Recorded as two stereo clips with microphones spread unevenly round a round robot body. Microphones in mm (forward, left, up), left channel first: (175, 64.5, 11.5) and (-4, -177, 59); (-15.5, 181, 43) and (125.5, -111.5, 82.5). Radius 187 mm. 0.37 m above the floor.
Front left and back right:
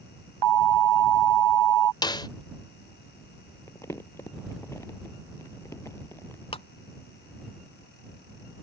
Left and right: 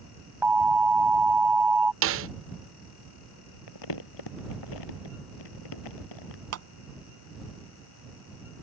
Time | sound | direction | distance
0.4 | an alarm | 150° right | ?
2.0 | a snare drum | 15° right | ?
3.7 | crumpling | 135° left | ?
6.5 | a clap | 20° right | ?